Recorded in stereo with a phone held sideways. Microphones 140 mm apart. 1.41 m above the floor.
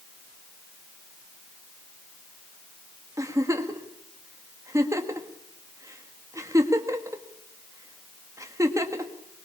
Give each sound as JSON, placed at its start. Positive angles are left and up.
{"t": 3.2, "sound": "a giggle", "side_deg": -20, "distance_m": 1.9}